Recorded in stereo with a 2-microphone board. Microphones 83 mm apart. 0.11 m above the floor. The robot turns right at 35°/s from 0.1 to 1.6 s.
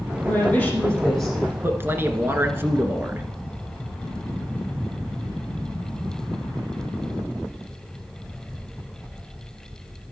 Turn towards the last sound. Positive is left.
turn(degrees=-30)  # may be behind; listen again after turning